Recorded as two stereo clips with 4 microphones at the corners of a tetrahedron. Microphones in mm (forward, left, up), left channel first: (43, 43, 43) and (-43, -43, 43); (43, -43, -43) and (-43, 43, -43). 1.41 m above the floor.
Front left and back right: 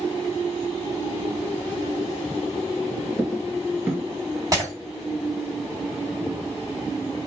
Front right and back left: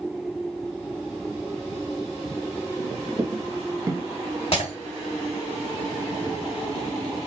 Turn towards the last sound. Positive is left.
turn(degrees=-80)